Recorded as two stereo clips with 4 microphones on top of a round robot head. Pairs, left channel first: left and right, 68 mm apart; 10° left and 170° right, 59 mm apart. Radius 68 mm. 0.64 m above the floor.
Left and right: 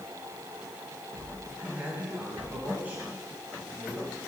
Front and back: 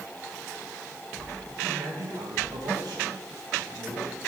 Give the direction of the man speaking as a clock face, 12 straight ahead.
5 o'clock.